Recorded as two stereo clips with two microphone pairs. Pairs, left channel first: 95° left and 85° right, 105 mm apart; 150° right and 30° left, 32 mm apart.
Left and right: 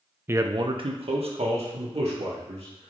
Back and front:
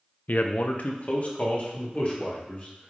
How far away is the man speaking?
About 0.5 m.